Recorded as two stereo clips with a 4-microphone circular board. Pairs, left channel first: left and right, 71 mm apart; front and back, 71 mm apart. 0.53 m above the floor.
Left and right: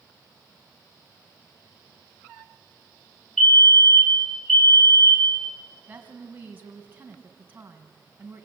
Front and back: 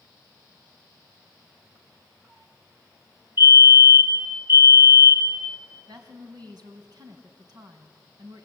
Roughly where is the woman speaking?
Behind right.